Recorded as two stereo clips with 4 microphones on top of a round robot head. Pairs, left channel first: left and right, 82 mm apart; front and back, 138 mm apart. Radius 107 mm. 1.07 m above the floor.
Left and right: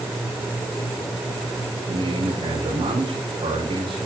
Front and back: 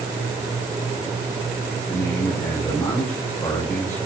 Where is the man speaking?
75° right, 7.5 m.